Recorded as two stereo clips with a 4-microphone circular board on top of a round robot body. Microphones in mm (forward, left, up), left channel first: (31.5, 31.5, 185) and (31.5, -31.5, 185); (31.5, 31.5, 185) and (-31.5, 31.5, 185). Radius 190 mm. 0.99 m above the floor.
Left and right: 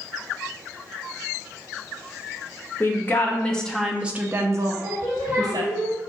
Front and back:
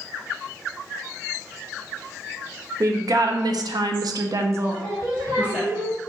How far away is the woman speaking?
About 0.8 m.